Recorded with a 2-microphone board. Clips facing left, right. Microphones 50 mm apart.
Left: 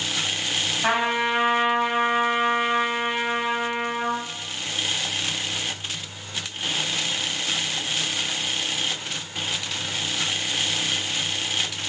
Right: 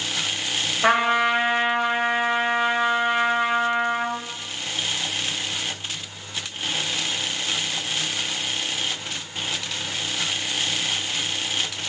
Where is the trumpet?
75° right (ahead or behind), 3.5 m.